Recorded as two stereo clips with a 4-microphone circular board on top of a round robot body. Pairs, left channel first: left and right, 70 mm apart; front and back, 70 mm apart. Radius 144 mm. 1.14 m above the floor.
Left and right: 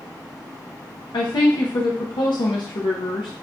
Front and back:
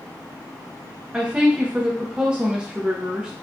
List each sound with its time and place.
1.1 s a woman speaking: 105° left, 0.6 m